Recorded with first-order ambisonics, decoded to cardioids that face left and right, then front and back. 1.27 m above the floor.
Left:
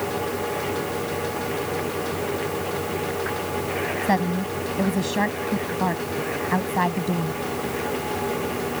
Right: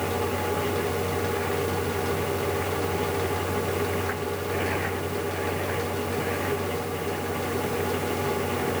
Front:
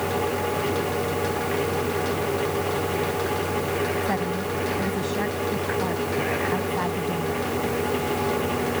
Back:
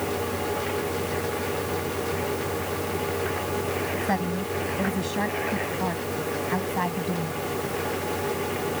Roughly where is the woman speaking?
Left.